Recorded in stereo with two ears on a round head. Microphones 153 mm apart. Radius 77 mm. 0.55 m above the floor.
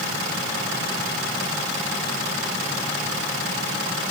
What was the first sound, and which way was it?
Only background noise.